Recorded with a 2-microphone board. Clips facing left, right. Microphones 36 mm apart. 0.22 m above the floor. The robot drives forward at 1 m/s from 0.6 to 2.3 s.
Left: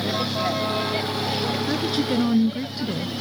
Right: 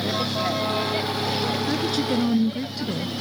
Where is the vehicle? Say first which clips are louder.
Even; 5° left (ahead or behind).